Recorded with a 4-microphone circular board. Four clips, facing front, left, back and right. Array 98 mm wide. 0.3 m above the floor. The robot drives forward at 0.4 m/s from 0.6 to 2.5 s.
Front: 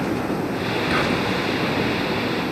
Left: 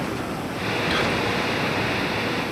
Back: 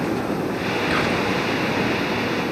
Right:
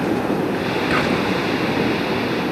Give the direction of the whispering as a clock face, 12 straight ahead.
3 o'clock.